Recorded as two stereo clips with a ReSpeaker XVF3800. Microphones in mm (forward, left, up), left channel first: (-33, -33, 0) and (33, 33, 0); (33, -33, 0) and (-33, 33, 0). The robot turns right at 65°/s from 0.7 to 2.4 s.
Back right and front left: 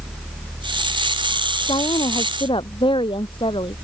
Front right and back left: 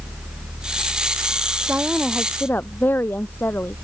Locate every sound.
1.7 s a woman speaking: 160° right; by 3.8 s 110° right